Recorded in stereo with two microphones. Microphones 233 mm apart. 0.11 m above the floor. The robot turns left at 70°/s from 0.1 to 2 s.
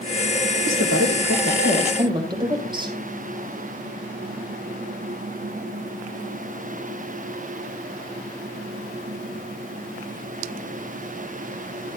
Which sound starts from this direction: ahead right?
A woman speaking, at 0.7 s.